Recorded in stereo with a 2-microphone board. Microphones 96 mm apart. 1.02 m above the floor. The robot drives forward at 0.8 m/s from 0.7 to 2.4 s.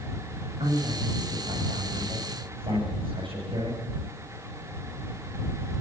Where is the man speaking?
70° right (ahead or behind), 7.5 m; by 3.8 s 60° right (ahead or behind), 8 m.